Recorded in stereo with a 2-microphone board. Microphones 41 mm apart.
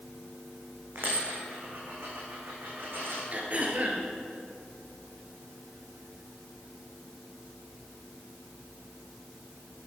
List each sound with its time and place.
0.9 s a dropped coin: 60° right (ahead or behind), 3.5 m
3.3 s throat clearing: 40° right (ahead or behind), 1.9 m